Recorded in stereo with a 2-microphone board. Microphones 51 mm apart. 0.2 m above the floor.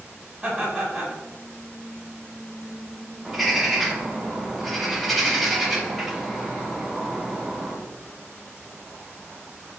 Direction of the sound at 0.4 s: 10° right (ahead or behind).